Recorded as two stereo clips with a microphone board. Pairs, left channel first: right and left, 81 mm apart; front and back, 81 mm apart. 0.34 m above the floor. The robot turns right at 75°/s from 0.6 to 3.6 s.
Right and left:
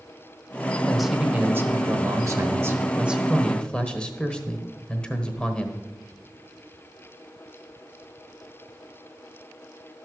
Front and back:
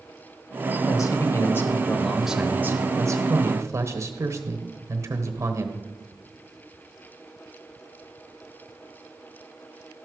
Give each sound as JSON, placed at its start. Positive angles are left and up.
{"t": 0.9, "sound": "a man speaking", "azimuth_deg": -5, "distance_m": 1.1}